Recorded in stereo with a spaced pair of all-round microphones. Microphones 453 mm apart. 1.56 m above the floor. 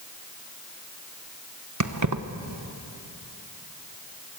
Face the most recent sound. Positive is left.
turn(degrees=-40)  # may be behind; listen again after turning